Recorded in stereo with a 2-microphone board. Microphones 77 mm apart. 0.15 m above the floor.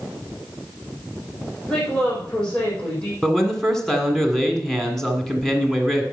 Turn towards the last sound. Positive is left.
turn(degrees=5)  # may be behind; listen again after turning